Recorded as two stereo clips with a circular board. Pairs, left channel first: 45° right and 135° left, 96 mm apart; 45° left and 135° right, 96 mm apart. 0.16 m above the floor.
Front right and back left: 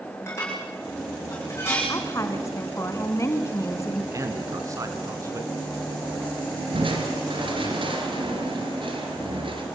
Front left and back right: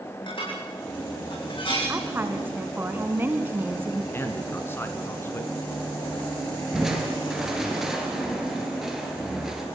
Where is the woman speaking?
80° right, 2 m.